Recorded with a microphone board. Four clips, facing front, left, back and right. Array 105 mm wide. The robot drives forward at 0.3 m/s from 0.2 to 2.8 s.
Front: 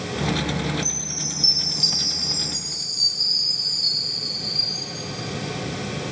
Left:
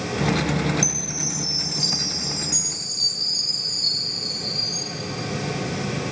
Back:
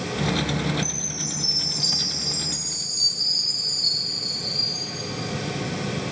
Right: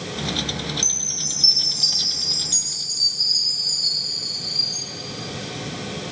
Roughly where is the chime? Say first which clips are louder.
Left 7 dB, back 1 dB; ahead right.